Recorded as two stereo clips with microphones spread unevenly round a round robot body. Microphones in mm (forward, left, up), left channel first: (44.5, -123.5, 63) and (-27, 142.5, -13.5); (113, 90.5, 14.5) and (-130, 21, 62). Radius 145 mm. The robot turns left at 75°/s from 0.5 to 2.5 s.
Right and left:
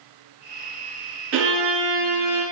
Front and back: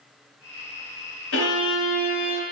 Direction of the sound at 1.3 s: 55° left.